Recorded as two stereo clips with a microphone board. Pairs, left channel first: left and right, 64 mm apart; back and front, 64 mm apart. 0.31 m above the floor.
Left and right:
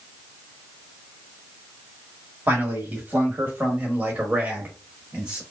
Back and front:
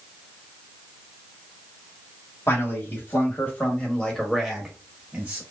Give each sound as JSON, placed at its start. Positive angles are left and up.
{"t": 2.5, "sound": "a man speaking", "azimuth_deg": -145, "distance_m": 2.0}